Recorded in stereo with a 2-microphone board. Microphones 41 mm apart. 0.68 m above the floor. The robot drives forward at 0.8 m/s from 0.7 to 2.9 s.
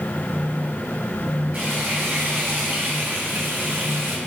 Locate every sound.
1.5 s frying: 40° right (ahead or behind), 4.5 m; by 4.2 s 55° right (ahead or behind), 4 m